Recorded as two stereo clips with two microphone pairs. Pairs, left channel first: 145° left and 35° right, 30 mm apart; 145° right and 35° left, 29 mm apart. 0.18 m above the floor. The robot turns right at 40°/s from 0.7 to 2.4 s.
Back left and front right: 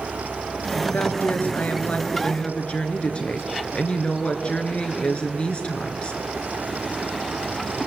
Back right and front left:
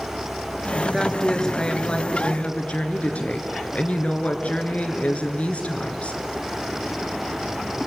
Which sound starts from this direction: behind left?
A woman speaking, at 0.9 s.